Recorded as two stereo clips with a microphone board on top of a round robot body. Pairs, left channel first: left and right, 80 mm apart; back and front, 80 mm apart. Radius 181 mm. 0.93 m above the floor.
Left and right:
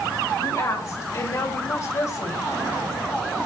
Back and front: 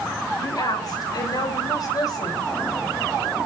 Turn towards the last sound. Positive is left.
turn(degrees=140)